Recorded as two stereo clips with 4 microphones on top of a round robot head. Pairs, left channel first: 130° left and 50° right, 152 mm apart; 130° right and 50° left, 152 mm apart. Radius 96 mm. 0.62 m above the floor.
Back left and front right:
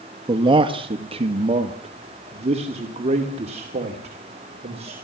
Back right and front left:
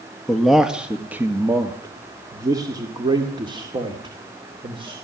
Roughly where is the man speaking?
Ahead right.